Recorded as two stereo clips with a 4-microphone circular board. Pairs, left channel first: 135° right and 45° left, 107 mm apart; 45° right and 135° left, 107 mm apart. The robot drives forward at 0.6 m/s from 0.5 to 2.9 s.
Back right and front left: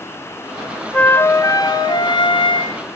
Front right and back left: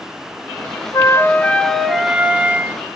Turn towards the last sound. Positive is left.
turn(degrees=-160)